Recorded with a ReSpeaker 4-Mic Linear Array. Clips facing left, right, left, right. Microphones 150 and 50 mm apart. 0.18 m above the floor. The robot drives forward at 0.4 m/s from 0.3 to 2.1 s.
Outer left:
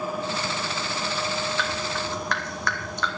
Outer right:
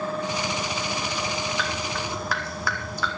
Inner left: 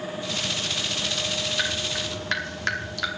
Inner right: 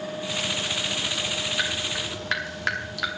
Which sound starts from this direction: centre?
Dripping, at 1.6 s.